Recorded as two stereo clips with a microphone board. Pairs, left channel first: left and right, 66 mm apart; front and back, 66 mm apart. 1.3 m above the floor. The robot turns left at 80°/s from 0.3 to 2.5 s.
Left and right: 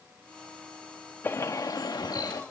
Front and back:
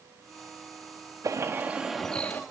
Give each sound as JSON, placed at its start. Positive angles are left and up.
{"t": 1.2, "sound": "a bird", "azimuth_deg": 150, "distance_m": 2.0}